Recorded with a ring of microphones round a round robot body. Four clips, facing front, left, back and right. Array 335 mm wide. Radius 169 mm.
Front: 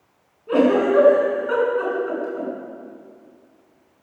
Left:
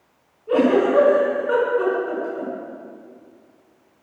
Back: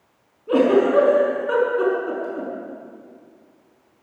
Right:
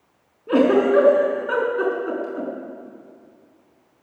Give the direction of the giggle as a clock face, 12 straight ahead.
3 o'clock.